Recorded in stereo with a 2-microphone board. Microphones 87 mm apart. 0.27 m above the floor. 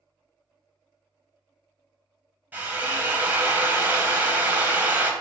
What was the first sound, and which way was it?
A drill, 20° right (ahead or behind).